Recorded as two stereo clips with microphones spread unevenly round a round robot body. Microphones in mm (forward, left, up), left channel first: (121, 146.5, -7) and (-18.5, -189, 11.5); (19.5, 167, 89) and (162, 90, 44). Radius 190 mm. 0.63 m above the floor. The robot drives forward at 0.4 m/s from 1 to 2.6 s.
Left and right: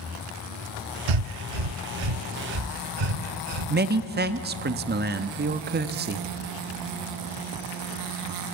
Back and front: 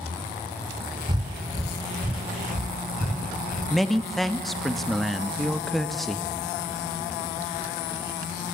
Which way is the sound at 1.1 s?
105° right.